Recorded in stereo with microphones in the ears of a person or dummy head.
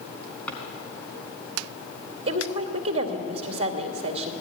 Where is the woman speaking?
35° right (ahead or behind), 2 m.